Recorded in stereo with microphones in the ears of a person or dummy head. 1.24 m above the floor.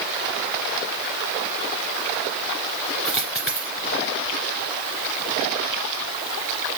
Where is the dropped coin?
Centre (ahead or behind), 2 m.